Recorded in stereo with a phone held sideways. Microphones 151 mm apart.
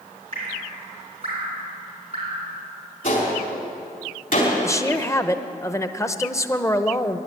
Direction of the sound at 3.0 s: 65° left (ahead or behind).